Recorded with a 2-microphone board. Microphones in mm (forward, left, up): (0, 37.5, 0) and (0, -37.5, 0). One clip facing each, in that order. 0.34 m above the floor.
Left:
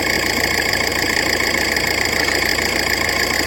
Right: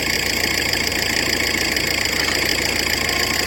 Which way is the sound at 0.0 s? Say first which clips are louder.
Left 4 dB; 40° left (ahead or behind).